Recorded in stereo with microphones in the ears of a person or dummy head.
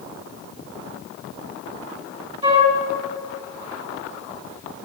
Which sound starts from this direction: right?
A flute, at 2.4 s.